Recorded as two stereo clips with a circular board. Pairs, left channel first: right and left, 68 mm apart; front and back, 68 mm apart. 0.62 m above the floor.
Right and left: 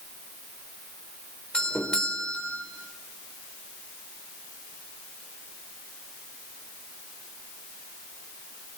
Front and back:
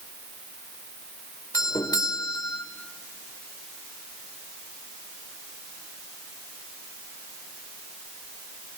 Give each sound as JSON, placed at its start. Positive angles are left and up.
{"t": 1.5, "sound": "a doorbell", "azimuth_deg": -15, "distance_m": 2.5}